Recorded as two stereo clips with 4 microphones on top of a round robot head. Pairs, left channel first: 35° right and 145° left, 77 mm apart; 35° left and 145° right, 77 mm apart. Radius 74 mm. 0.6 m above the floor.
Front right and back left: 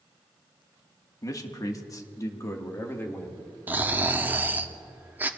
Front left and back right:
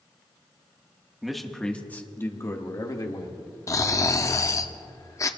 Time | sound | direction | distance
1.2 | a man speaking | 60° right | 1.6 m
3.7 | snoring | 80° left | 0.8 m